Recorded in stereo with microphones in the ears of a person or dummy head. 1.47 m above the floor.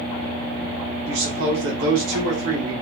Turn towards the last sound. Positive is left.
turn(degrees=-80)